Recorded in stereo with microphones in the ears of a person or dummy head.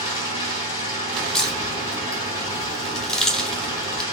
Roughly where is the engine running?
Centre.